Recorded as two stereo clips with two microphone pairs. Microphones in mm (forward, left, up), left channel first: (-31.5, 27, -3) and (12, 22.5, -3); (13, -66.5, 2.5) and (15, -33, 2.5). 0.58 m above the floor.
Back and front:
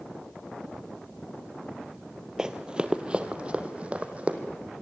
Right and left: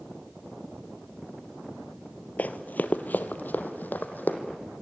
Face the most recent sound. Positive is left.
turn(degrees=-65)